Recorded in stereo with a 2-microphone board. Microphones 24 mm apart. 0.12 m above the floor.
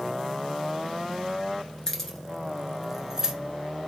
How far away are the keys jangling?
About 1.0 m.